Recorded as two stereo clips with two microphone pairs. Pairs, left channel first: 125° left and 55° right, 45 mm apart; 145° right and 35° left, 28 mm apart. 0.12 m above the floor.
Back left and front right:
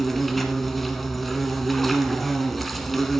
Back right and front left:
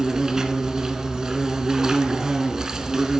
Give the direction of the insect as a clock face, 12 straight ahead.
10 o'clock.